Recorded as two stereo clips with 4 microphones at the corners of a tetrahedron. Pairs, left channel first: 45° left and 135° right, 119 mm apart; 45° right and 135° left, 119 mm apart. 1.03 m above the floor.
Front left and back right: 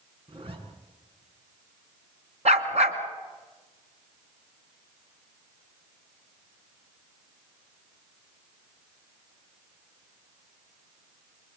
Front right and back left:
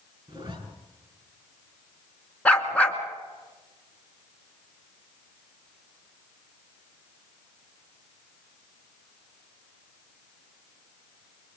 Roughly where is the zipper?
Behind.